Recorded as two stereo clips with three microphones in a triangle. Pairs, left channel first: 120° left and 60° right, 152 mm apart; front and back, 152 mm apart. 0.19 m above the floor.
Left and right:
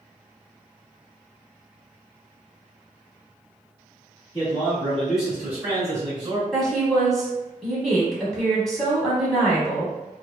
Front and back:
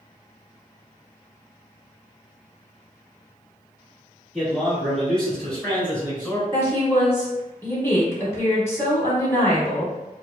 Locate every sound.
4.3 s a man speaking: 95° left, 1.3 m; by 6.4 s 70° right, 1.4 m
6.5 s a woman speaking: 35° left, 1.0 m